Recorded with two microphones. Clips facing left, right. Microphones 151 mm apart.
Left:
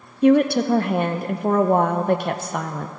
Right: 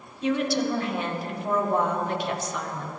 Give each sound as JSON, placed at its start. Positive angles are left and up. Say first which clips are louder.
{"t": 0.2, "sound": "a woman speaking", "louder": "left 9 dB", "side_deg": 55, "distance_m": 0.6}